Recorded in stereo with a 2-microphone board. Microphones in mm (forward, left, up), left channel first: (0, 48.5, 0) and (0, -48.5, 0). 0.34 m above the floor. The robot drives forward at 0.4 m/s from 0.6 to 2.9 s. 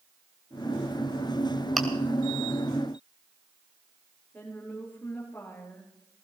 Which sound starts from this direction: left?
A woman speaking, at 4.3 s.